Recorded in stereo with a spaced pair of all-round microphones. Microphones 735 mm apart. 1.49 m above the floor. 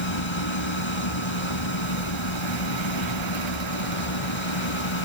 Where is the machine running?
40° left (ahead or behind).